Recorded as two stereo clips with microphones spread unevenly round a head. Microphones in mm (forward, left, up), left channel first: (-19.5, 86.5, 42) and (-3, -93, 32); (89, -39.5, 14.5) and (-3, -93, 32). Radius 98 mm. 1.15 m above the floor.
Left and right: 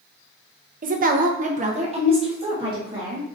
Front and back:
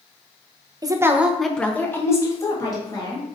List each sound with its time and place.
0.8 s a woman speaking: 100° right, 0.8 m; by 3.2 s 20° right, 2 m